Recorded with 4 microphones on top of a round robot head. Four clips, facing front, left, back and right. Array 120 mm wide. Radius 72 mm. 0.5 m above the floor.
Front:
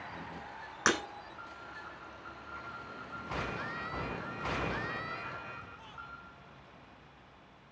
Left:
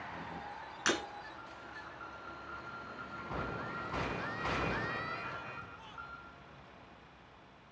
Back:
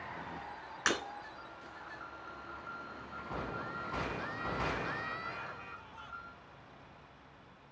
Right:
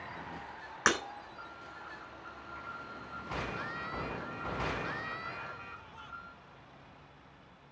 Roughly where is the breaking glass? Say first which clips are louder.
Right 4 dB, front 4 dB; ahead right.